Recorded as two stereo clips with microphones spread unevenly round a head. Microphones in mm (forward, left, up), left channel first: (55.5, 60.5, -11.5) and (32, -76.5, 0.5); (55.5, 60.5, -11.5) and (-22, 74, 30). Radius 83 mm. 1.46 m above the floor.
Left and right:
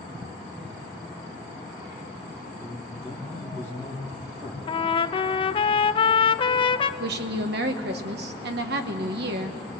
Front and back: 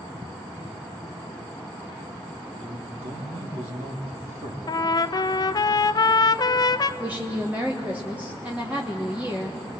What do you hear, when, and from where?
2.6 s a man speaking: 175° right, 3.5 m
4.7 s a trumpet: 45° left, 0.7 m
7.0 s a woman speaking: 110° right, 1.5 m